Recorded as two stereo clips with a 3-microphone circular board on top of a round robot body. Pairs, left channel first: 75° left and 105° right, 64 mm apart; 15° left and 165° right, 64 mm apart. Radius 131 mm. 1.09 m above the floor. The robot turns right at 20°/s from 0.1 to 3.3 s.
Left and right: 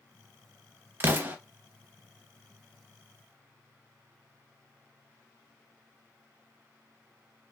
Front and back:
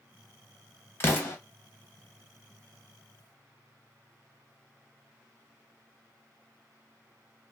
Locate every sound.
1.0 s an explosion: 45° right, 0.7 m; by 1.4 s 35° right, 0.7 m